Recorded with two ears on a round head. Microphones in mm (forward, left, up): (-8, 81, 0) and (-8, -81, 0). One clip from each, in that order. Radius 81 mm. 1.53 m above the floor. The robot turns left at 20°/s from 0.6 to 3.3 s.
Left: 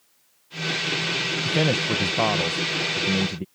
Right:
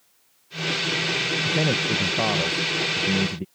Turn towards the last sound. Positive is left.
turn(degrees=10)